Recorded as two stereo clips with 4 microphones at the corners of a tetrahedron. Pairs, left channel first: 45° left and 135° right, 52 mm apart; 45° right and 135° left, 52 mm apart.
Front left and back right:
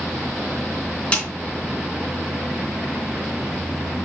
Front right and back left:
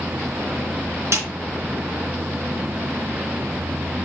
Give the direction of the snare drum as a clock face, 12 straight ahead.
8 o'clock.